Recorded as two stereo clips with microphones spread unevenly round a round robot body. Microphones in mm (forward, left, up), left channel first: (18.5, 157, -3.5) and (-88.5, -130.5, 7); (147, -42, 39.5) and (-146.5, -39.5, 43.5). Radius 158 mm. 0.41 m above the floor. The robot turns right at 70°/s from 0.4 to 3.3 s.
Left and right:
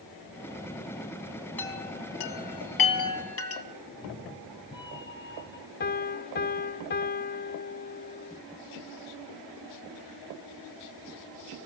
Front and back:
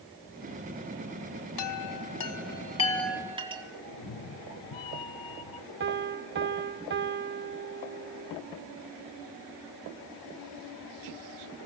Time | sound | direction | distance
1.6 | a chime | 15° right | 2.5 m
3.9 | a cat meowing | 10° right | 1.7 m
5.8 | a piano | 125° left | 0.6 m